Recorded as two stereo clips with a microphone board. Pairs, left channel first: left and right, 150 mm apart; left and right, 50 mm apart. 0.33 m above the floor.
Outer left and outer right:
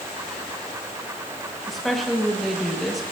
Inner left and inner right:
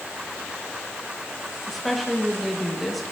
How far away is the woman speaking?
About 1.7 m.